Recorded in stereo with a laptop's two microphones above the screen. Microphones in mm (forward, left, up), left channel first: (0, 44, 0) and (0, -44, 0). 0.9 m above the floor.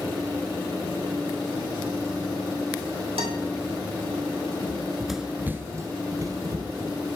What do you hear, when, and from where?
3.2 s a guitar: 80° right, 2 m
4.6 s running footsteps: 25° left (ahead or behind), 1.0 m; by 6.9 s 45° right (ahead or behind), 2.5 m